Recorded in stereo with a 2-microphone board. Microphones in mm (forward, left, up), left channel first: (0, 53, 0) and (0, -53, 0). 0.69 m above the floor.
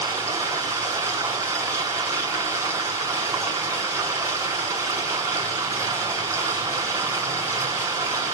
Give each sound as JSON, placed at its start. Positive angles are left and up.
{"t": 0.0, "sound": "running water", "side_deg": -30, "distance_m": 6.5}